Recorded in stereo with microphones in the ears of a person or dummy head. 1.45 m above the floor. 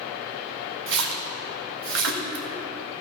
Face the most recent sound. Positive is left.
turn(degrees=-70)  # may be behind; listen again after turning